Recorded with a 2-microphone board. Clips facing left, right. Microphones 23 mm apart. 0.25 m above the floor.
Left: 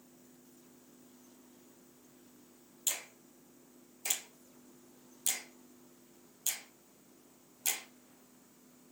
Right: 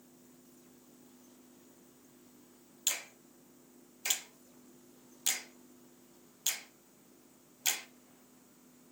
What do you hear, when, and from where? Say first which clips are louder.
2.9 s a finger snap: right 2 dB; 30° right (ahead or behind), 0.9 m